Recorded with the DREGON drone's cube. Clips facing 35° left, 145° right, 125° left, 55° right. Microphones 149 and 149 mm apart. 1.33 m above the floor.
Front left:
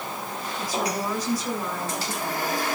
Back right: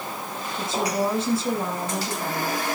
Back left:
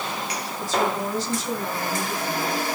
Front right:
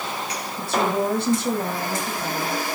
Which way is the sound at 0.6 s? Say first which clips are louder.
Back right 3 dB, front right 2 dB; 80° right.